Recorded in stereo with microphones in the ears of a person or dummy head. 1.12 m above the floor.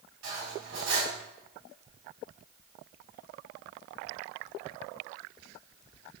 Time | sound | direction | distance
0.2 | cutlery clinking | 80° right | 4.5 m